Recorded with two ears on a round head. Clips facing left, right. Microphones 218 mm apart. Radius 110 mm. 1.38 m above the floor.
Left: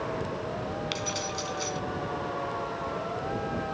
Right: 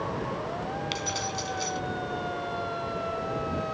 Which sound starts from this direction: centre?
Keys jangling, at 0.9 s.